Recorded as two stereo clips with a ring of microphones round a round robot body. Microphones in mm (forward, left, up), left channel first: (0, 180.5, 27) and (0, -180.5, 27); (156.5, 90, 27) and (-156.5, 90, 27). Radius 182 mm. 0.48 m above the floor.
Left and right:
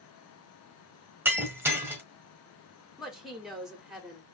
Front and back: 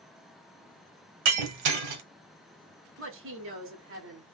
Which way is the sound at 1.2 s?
175° right.